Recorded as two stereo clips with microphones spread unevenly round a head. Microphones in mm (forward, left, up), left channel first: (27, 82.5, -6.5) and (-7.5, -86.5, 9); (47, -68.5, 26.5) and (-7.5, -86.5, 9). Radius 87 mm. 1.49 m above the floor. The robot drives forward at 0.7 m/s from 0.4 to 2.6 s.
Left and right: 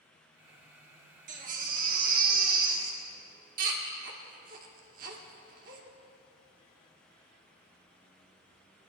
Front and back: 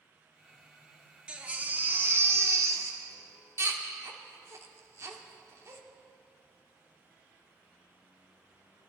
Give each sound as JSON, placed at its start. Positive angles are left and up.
{"t": 1.3, "sound": "a baby crying", "azimuth_deg": -80, "distance_m": 1.4}